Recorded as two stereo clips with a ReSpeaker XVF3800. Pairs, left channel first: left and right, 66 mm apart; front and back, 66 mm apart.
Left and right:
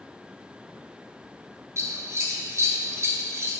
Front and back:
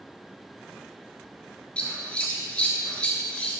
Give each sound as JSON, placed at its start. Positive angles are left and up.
{"t": 1.8, "sound": "scissors", "azimuth_deg": -70, "distance_m": 0.9}